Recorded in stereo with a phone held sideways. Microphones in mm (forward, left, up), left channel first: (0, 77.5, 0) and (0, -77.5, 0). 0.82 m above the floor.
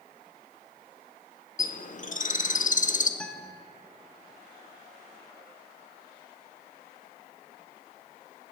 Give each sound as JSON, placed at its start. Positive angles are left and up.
{"t": 1.6, "sound": "a bird", "side_deg": 55, "distance_m": 0.6}
{"t": 3.2, "sound": "a guitar", "side_deg": 5, "distance_m": 0.7}